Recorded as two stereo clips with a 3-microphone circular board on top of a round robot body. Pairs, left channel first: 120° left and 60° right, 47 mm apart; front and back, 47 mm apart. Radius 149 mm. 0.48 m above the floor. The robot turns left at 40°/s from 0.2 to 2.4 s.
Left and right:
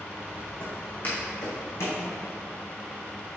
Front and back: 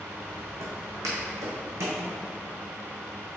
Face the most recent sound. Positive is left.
turn(degrees=130)